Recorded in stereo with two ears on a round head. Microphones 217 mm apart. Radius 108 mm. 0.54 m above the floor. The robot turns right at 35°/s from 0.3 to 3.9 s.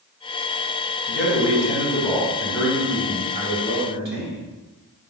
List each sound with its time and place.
1.1 s a man speaking: 130° left, 3.5 m; by 4.4 s 135° right, 3.5 m